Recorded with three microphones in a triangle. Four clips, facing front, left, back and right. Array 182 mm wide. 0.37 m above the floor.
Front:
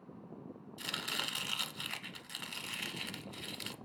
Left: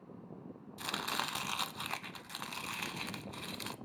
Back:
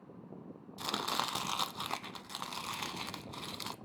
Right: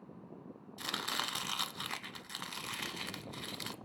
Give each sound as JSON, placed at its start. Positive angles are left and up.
{"t": 0.8, "sound": "chopping", "azimuth_deg": -175, "distance_m": 0.6}